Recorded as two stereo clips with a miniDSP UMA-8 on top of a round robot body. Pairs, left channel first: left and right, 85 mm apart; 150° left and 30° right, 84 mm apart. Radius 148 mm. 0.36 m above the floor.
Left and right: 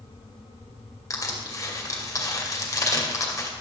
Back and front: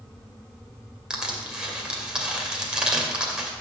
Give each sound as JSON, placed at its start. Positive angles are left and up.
{"t": 1.1, "sound": "crushing", "azimuth_deg": 50, "distance_m": 2.0}